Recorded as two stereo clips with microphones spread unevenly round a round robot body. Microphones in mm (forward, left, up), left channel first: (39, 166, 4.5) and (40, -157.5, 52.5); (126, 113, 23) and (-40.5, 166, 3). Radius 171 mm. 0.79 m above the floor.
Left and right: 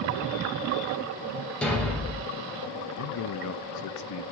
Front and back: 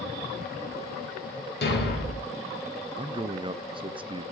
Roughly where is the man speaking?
Left.